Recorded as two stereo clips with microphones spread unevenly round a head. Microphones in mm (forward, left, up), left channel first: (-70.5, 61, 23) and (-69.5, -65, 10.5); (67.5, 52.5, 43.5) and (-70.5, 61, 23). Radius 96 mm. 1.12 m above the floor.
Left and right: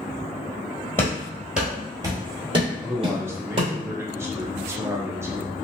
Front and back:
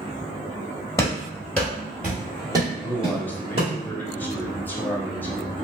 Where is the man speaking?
85° right, 0.7 m.